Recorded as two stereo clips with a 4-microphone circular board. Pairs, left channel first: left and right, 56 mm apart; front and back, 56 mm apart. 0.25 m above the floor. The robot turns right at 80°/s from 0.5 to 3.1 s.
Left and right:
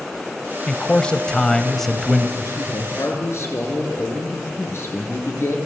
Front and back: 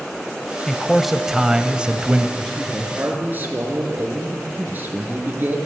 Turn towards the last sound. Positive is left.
turn(degrees=125)